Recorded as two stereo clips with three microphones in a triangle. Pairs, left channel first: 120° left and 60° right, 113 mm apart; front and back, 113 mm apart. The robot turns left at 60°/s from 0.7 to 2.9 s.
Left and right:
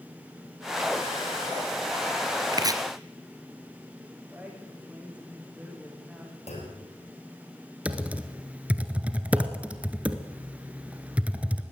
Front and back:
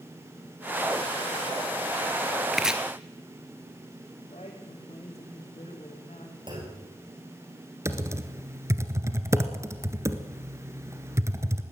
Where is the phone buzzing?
No phone buzzing in this recording.